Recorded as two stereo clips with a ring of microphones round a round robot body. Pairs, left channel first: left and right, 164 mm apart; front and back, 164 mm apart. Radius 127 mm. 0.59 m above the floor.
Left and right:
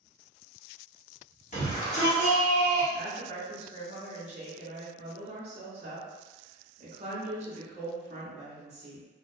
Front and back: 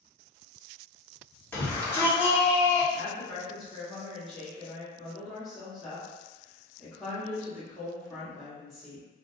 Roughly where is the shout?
Left.